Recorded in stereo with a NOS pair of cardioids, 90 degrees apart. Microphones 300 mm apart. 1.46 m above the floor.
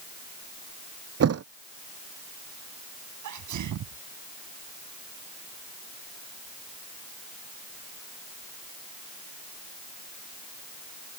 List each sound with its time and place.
1.2 s a thud: 50° right
3.2 s a sneeze: 65° right